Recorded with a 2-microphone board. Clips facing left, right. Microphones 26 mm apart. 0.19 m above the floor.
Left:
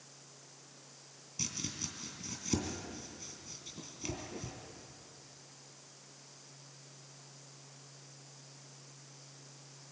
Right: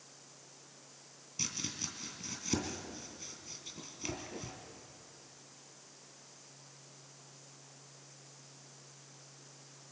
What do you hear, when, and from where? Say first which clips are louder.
1.4 s chopping: right 1 dB; 15° right (ahead or behind), 2.5 m